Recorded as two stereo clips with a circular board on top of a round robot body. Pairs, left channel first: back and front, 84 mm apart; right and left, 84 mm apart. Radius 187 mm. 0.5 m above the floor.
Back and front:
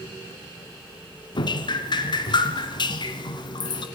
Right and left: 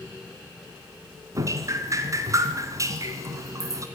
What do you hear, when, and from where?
1.4 s dripping: 145° left, 1.6 m